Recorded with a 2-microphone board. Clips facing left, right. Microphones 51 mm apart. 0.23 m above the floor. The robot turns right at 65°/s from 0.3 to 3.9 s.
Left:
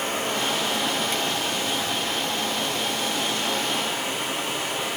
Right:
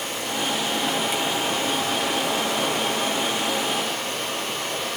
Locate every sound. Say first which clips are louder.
0.0 s running water: left 2 dB; 135° left, 8 m; by 5.0 s 10° left, 8 m